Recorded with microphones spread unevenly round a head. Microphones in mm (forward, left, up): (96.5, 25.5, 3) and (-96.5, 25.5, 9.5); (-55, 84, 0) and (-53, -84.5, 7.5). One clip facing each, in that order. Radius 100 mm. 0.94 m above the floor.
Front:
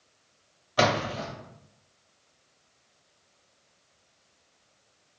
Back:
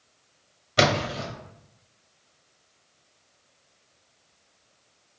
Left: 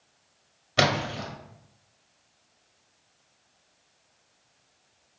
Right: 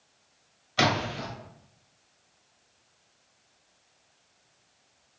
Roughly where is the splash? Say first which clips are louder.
Back 2 dB, left 1 dB; behind left.